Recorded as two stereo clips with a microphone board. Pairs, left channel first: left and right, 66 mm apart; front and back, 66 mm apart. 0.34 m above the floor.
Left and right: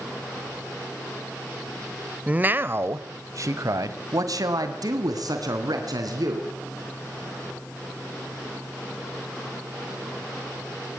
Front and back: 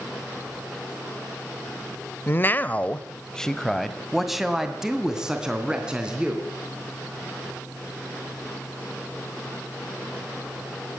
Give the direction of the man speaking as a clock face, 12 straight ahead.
1 o'clock.